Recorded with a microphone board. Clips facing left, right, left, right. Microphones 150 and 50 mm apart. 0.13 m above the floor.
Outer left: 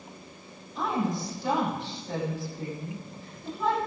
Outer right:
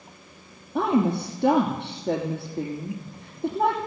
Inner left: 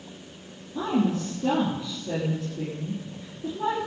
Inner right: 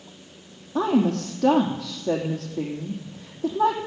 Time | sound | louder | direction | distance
0.8 | a woman speaking | outer right 7 dB, inner right 4 dB | 70° right (ahead or behind) | 3 m